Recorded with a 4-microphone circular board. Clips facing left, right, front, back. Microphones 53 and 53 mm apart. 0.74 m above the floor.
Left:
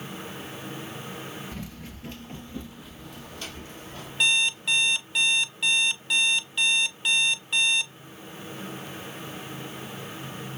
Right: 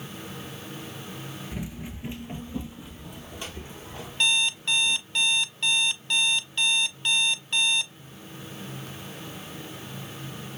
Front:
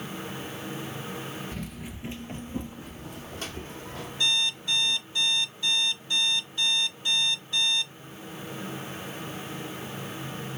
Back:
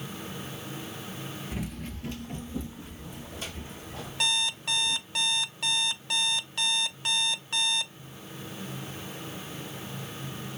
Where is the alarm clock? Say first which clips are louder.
Left 1 dB, front 1 dB; 175° left, 0.6 m.